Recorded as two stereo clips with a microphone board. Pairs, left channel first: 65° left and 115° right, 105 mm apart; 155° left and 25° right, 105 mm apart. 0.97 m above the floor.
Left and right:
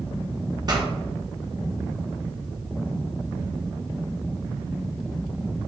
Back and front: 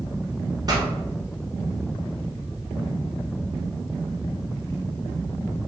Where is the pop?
70° right, 0.8 m.